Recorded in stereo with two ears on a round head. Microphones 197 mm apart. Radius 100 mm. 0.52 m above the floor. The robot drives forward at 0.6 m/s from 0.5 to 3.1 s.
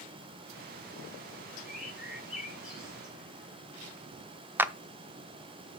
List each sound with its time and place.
1.7 s a bird: 5° right (ahead or behind), 3 m
4.6 s a clap: 10° right (ahead or behind), 0.6 m